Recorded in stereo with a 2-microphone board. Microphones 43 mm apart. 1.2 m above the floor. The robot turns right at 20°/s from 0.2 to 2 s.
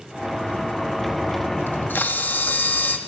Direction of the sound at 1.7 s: 50° left (ahead or behind).